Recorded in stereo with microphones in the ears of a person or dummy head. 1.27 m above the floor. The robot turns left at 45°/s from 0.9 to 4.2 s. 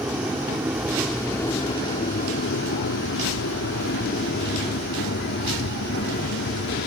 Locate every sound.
0.0 s an aircraft: centre (ahead or behind); by 6.9 s 65° left (ahead or behind)